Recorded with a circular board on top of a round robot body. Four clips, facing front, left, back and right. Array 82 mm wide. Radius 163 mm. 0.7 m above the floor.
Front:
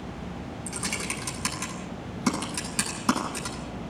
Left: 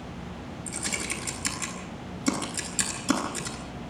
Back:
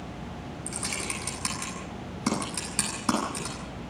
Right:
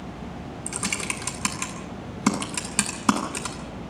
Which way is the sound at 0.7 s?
85° right.